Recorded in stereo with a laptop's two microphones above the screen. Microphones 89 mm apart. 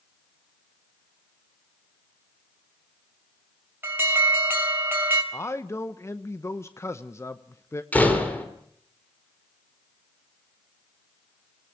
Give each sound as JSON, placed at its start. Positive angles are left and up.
{"t": 3.8, "sound": "an alarm", "side_deg": -25, "distance_m": 3.5}
{"t": 5.3, "sound": "a man speaking", "side_deg": 30, "distance_m": 0.9}
{"t": 7.9, "sound": "a door slam", "side_deg": 20, "distance_m": 2.0}